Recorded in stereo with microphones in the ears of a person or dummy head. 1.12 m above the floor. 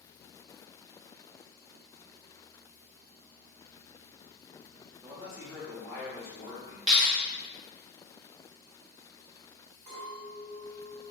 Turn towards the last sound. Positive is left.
turn(degrees=-35)  # may be behind; listen again after turning